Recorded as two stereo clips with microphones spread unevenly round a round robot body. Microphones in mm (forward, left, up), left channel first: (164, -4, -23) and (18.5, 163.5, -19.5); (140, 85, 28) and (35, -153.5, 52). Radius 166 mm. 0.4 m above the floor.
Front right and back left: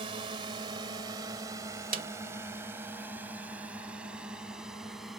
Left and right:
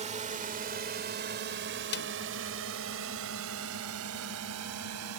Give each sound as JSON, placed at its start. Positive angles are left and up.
{"t": 0.0, "sound": "a drone", "azimuth_deg": -175}
{"t": 1.9, "sound": "a snare drum", "azimuth_deg": 95}